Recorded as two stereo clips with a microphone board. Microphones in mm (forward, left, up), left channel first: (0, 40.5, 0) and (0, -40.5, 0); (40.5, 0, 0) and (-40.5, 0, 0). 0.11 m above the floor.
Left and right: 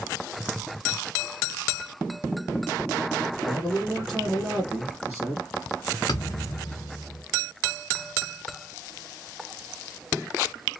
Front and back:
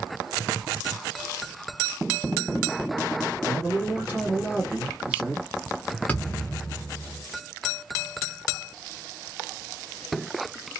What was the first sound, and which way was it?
A man speaking, 165° left.